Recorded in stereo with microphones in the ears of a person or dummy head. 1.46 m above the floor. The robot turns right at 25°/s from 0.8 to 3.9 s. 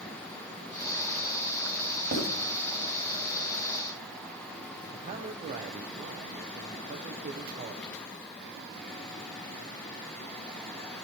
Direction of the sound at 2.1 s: 55° right (ahead or behind).